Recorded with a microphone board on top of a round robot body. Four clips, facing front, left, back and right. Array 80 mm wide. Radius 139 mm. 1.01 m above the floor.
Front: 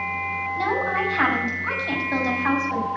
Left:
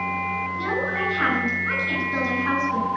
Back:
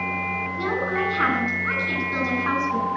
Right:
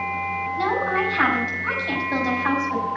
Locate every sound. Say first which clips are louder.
0.6 s a woman speaking: right 6 dB, front 2 dB; 40° right, 6.5 m